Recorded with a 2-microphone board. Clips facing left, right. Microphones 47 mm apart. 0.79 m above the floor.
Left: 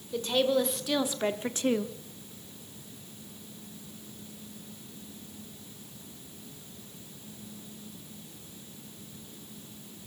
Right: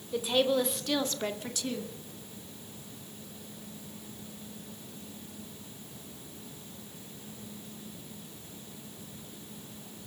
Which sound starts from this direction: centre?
A woman speaking, at 0.1 s.